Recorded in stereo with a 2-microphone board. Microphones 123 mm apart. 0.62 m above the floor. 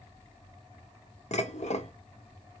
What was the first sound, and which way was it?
Dishes clattering, 65° left (ahead or behind).